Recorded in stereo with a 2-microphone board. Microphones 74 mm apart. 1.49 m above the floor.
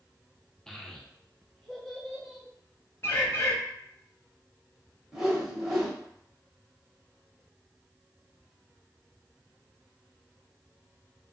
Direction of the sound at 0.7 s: 5° left (ahead or behind).